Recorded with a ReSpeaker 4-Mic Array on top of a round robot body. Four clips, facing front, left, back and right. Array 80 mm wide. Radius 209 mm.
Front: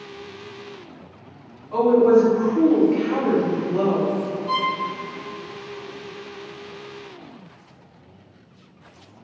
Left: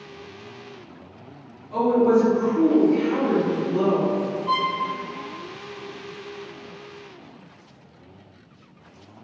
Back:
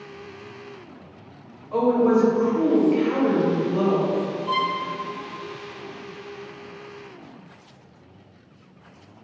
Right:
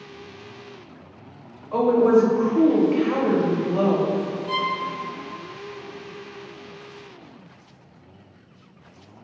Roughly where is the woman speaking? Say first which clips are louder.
Right 1 dB, front 4 dB; right.